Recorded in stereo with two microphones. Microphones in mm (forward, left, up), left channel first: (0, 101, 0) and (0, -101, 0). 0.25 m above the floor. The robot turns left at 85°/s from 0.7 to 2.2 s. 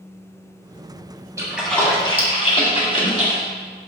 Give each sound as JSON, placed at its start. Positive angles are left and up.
{"t": 1.4, "sound": "a splash", "side_deg": -15, "distance_m": 1.8}